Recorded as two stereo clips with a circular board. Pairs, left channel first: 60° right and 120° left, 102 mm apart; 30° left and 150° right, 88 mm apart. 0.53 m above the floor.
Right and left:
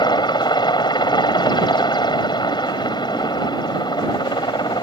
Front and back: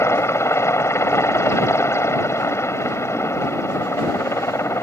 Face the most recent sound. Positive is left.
turn(degrees=-25)